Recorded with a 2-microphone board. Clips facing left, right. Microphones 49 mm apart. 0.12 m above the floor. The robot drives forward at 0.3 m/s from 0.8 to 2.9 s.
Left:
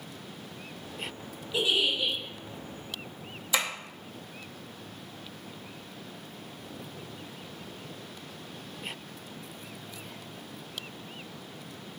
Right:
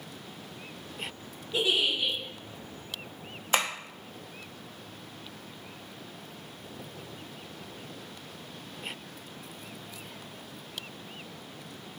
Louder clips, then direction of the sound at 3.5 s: Right 2 dB; 45° right (ahead or behind).